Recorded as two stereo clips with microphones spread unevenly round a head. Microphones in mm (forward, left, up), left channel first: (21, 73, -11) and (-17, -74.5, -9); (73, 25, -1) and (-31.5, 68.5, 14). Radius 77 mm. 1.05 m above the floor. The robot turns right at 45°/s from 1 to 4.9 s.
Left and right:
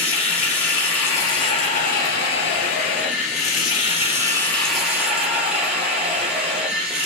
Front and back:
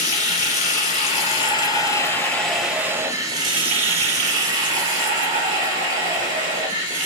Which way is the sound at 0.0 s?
5° right.